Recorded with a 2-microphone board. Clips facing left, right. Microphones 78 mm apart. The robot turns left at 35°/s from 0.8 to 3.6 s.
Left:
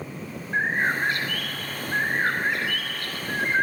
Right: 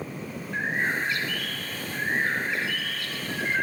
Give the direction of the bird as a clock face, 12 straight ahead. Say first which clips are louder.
Left 4 dB; 8 o'clock.